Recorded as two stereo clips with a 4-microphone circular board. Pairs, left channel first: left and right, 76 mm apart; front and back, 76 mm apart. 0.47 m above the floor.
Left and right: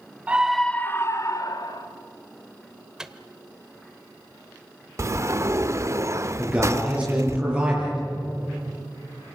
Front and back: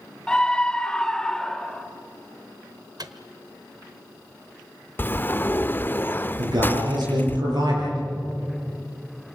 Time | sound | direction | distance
0.3 | a scream | 55° right | 0.8 m
3.0 | a microwave | 170° right | 1.1 m
5.0 | a sliding door | 55° right | 0.5 m
6.4 | a man speaking | 160° right | 8.5 m